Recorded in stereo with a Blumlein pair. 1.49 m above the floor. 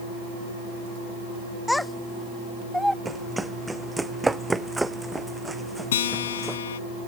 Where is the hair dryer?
No hair dryer in this recording.